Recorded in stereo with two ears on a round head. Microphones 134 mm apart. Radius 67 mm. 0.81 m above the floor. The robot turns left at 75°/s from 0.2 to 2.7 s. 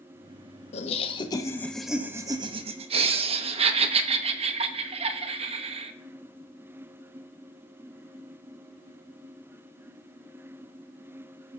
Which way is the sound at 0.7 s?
80° left.